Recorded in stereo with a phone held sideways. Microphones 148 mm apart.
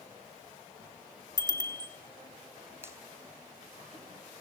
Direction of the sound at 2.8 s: 15° right (ahead or behind).